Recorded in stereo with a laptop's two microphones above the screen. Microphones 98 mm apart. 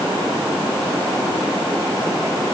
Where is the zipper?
I don't hear a zipper.